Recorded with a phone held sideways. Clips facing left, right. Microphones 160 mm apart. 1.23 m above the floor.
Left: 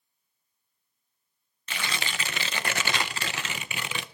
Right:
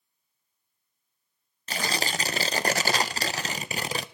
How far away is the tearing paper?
About 0.6 m.